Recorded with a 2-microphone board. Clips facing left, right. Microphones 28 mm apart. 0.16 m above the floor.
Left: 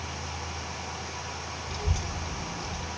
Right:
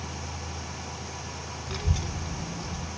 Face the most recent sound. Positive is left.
turn(degrees=40)  # may be behind; listen again after turning